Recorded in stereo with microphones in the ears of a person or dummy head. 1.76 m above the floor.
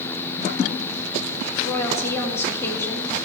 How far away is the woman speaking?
About 2.5 m.